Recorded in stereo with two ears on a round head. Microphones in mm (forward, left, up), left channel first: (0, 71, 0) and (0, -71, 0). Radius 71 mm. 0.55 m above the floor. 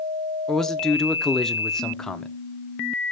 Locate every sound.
0.5 s a man speaking: 5° left (ahead or behind), 0.7 m